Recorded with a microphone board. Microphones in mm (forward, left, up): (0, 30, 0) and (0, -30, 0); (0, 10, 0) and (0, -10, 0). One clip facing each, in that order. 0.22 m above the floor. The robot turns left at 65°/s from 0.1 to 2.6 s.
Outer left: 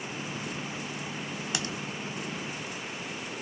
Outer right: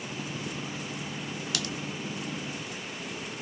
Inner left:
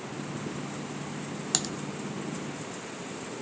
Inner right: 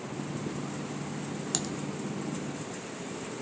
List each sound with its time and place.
1.5 s typing on a keyboard: 25° left (ahead or behind), 0.6 m; by 1.7 s 35° left (ahead or behind), 0.6 m